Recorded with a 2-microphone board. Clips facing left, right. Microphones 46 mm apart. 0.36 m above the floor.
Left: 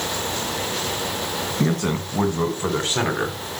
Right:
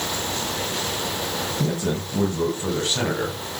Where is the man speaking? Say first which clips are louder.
Left 4 dB; 50° left (ahead or behind), 3 m; by 3.4 s 20° left (ahead or behind), 2.5 m.